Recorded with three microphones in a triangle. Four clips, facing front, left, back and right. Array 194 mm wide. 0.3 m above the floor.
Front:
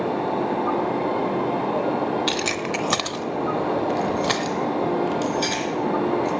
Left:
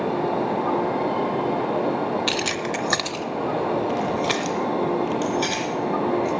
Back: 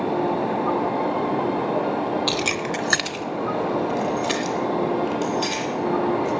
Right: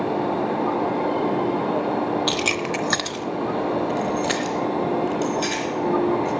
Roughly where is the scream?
No scream in this recording.